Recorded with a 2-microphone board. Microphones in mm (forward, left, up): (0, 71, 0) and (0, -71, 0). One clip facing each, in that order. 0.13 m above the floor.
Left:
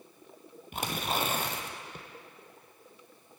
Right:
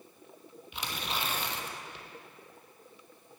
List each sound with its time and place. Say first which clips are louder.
0.7 s tearing paper: left 5 dB; 50° left (ahead or behind), 1.0 m